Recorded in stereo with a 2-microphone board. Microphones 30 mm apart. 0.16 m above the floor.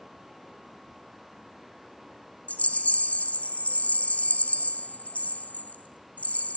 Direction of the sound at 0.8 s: 20° left (ahead or behind).